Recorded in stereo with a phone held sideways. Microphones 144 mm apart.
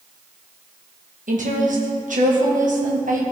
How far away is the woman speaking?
About 1.6 m.